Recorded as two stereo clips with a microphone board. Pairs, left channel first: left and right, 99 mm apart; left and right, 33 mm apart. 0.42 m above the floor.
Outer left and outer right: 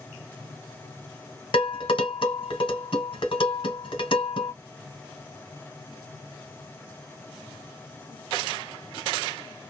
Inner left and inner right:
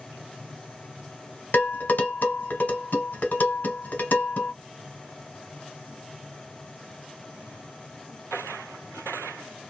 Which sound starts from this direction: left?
Dishes clattering, at 1.5 s.